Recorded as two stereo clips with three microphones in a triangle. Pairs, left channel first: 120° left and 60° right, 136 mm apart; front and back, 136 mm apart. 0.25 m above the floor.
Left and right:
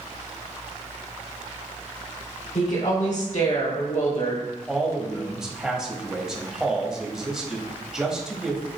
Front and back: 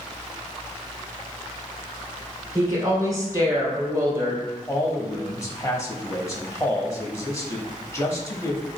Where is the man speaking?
20° left, 1.0 m.